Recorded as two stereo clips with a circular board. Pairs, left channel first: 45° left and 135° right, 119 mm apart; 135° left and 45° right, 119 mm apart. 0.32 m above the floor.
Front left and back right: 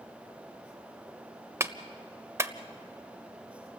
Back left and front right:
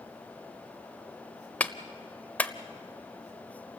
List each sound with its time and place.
1.6 s a clap: 165° right, 0.9 m